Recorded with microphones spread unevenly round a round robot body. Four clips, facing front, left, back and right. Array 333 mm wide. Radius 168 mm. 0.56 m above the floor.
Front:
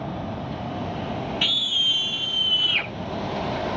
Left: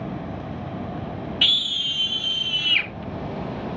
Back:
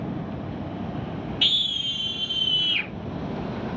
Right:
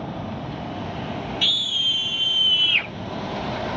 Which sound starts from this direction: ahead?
A scream, at 1.4 s.